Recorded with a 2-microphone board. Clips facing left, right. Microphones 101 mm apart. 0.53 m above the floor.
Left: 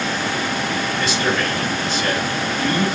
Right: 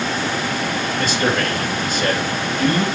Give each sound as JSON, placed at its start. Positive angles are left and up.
{"t": 1.0, "sound": "a man speaking", "side_deg": -50, "distance_m": 2.5}